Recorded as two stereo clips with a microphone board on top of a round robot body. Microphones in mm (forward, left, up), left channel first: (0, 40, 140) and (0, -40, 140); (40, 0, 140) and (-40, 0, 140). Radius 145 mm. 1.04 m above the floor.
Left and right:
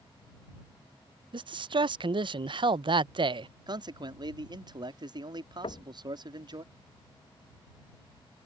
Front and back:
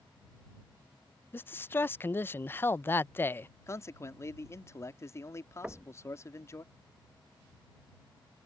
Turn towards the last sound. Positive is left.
turn(degrees=100)